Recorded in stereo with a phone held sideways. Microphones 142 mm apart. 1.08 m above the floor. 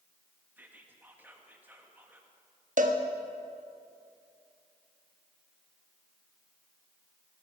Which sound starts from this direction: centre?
Whispering, at 0.6 s.